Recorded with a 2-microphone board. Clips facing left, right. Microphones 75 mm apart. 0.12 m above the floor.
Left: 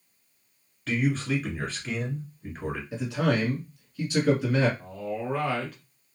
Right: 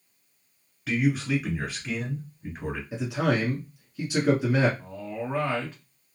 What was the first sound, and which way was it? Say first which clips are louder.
A man speaking: right 1 dB; 5° right (ahead or behind).